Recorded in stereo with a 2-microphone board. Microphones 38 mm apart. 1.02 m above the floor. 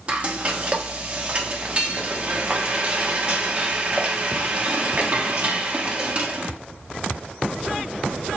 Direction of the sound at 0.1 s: 30° right (ahead or behind).